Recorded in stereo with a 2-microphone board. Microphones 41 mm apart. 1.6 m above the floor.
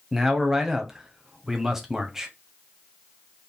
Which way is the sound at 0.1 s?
5° right (ahead or behind).